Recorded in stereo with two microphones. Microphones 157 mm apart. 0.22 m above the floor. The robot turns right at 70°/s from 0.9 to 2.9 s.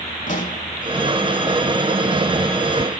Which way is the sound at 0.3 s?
55° left (ahead or behind).